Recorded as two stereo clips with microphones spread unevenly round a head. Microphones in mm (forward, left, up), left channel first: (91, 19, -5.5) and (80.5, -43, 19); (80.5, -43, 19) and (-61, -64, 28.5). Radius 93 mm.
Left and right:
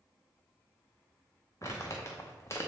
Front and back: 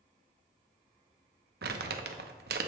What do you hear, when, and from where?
1.6 s crumpling: 155° left, 0.5 m